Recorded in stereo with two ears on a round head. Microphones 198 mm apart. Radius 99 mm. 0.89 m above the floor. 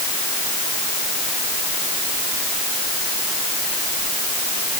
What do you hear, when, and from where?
Only background noise.